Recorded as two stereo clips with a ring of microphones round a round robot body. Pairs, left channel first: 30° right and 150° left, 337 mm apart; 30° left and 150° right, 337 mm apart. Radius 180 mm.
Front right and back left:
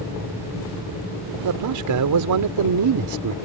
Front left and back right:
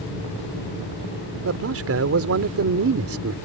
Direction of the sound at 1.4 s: 170° left.